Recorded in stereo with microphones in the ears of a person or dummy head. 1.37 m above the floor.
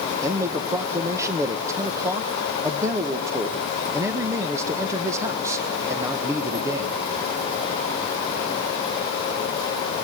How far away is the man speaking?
About 1.2 m.